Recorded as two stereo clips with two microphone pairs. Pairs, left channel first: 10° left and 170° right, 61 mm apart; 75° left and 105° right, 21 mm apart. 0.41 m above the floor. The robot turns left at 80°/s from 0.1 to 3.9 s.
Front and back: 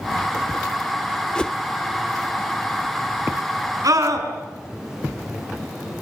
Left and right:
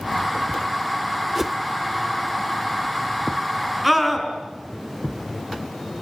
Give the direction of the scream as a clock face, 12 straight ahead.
6 o'clock.